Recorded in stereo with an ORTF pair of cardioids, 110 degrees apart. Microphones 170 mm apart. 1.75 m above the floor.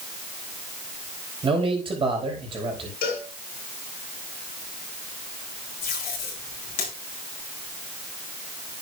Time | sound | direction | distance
1.4 | a man speaking | 30° right | 5 m
3.0 | a cowbell | 65° left | 7.5 m
5.8 | tape being pulled | 60° left | 6.5 m